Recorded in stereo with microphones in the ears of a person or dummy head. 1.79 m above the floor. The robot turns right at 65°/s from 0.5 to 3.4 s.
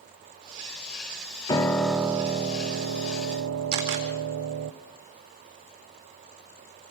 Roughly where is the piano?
Behind left.